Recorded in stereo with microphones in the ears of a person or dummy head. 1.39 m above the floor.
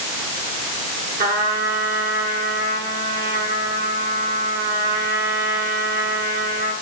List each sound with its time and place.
1.2 s a trumpet: 50° right (ahead or behind), 8 m